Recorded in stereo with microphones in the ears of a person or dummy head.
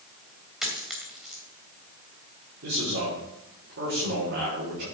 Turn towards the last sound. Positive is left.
turn(degrees=-60)  # may be behind; listen again after turning